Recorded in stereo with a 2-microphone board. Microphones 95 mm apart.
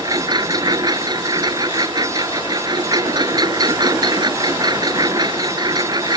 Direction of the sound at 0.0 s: 45° right (ahead or behind).